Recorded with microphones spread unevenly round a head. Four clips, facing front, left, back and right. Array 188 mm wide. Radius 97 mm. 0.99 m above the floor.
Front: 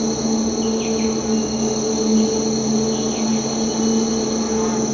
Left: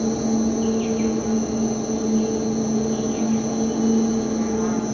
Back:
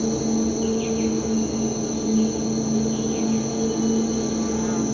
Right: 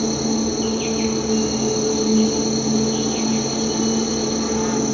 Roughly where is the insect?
Ahead right.